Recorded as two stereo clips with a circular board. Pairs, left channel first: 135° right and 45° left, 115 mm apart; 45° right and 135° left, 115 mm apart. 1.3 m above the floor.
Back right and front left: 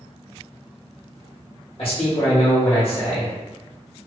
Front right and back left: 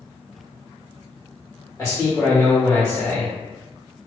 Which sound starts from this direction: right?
A man speaking, at 1.8 s.